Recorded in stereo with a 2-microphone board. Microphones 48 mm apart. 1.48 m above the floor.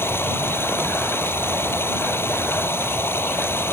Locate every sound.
0.0 s running water: 55° left (ahead or behind)